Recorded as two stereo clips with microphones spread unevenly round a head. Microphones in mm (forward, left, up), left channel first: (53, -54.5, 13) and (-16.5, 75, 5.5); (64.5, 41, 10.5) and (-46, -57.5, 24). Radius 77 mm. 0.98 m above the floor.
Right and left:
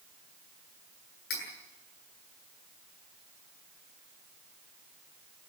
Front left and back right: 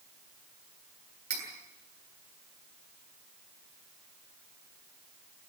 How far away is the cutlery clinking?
About 8 m.